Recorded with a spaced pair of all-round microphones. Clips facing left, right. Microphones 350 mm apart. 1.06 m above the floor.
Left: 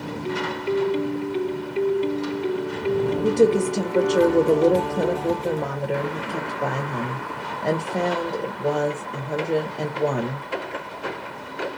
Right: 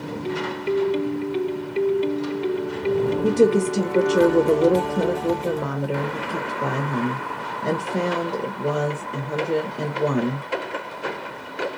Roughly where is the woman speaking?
Centre.